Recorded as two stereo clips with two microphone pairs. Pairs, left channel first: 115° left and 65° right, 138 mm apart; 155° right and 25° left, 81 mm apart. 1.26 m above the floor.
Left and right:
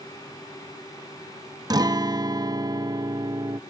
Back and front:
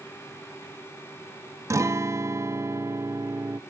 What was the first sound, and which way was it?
A guitar, 20° right.